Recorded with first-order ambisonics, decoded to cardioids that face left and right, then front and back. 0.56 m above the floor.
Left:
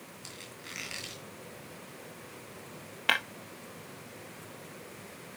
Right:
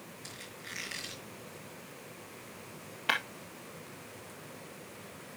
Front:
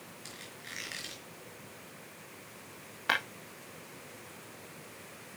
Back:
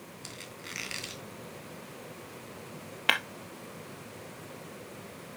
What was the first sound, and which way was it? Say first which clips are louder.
A squeak: even, back 3 dB; 165° left.